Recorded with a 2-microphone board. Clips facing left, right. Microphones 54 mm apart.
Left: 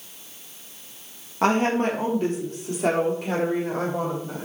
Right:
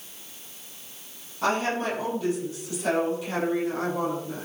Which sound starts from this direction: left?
A woman speaking, at 1.4 s.